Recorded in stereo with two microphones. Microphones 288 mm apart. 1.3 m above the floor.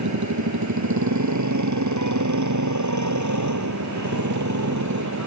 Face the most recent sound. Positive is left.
turn(degrees=-75)  # may be behind; listen again after turning